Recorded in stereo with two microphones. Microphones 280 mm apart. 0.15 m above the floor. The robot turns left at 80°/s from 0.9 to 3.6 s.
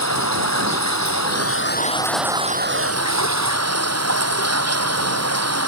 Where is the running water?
100° left; by 5.7 s 115° right.